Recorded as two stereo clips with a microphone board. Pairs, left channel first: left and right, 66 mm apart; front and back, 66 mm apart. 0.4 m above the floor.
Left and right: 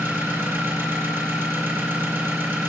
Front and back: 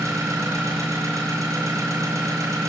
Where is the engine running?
140° right, 6 m.